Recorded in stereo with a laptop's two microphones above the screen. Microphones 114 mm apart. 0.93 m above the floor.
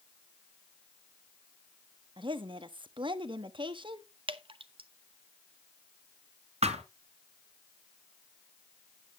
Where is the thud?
65° right (ahead or behind), 2.5 m.